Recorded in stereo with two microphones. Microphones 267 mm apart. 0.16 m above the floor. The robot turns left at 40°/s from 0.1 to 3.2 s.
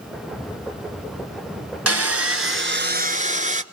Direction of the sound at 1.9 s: 95° right.